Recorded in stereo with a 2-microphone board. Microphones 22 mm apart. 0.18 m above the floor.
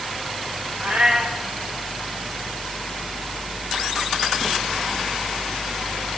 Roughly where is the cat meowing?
Right.